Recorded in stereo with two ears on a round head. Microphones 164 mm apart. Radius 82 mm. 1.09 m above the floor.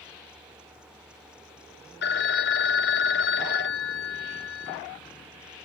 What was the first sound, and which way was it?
A phone ringing, 65° left (ahead or behind).